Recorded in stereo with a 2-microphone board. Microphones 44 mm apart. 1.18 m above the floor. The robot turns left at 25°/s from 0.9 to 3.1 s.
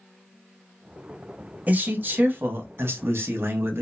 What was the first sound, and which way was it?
A man speaking, 40° right.